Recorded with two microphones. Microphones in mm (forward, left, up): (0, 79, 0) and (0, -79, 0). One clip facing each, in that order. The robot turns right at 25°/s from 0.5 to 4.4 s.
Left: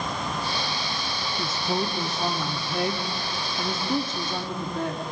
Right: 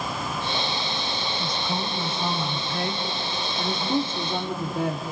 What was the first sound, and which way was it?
A woman speaking, 120° left.